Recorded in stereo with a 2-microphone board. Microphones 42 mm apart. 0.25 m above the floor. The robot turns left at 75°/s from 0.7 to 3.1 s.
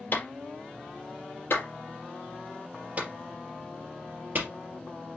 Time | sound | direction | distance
0.1 | a clap | 50° left (ahead or behind) | 4 m